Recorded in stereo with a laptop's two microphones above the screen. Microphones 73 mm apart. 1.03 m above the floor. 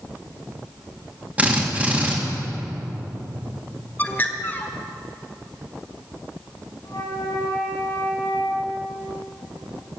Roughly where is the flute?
Left.